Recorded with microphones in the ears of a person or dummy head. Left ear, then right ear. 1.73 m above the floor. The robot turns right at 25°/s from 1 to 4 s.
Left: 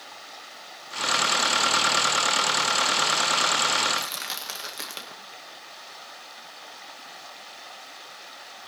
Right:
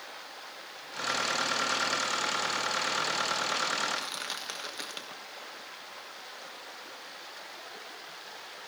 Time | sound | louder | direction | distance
3.9 | crushing | left 5 dB | 15° left (ahead or behind) | 1.6 m